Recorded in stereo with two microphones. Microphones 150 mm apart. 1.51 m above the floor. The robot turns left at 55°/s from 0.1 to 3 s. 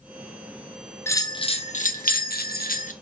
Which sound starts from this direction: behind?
A bell, at 1.1 s.